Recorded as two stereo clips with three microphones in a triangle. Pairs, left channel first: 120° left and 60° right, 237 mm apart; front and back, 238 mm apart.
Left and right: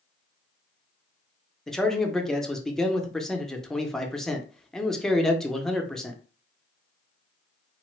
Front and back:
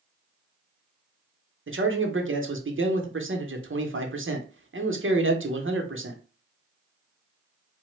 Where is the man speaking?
150° right, 0.6 m.